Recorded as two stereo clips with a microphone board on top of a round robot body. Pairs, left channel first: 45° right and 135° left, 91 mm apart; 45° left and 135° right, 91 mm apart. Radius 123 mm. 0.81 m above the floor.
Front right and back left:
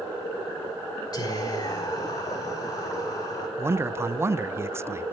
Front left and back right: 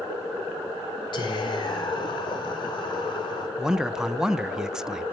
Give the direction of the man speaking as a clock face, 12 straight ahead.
7 o'clock.